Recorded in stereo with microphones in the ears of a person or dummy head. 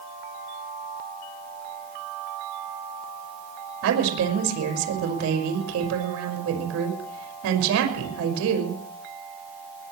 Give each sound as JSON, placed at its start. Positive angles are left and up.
{"t": 3.8, "sound": "a woman speaking", "side_deg": -85, "distance_m": 6.0}